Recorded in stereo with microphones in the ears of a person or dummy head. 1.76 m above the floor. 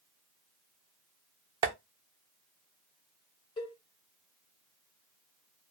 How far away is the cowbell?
About 1.5 m.